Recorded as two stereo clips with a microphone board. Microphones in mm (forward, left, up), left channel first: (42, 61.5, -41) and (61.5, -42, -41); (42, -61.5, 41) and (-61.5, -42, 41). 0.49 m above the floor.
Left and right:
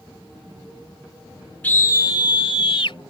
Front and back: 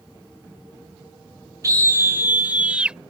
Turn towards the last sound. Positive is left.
turn(degrees=90)